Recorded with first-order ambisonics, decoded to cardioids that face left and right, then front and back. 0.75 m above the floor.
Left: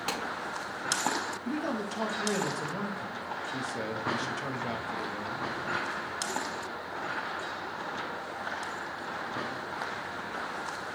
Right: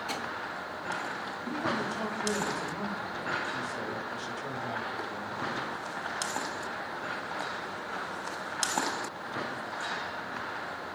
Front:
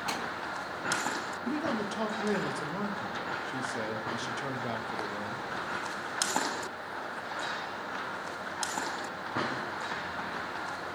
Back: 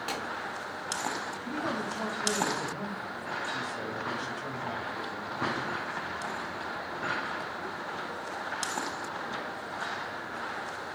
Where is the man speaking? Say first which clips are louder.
Right 2 dB, front 1 dB; 35° left, 0.5 m.